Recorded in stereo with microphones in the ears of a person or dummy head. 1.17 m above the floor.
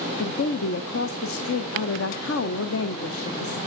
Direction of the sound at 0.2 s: 65° left (ahead or behind).